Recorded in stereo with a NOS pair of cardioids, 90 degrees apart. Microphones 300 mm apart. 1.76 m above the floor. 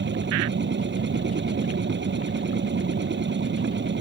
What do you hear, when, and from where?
0.0 s a machine running: 35° right